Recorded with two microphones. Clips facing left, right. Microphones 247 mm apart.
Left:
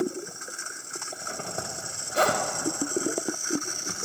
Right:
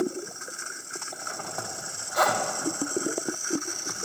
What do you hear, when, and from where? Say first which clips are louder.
1.1 s a zipper: left 3 dB; 30° left (ahead or behind), 0.8 m